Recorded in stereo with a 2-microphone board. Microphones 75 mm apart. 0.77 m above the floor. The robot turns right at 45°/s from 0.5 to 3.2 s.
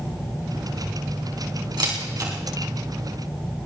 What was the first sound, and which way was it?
A camera shutter, 75° right (ahead or behind).